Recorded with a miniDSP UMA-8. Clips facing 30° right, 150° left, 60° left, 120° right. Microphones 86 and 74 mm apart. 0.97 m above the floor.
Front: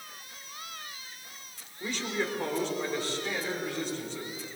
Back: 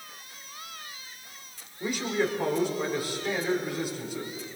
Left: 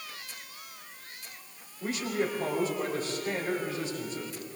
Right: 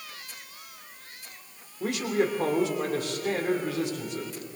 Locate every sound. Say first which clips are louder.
1.8 s a man speaking: back 5 dB, right 4 dB; 130° right, 3.5 m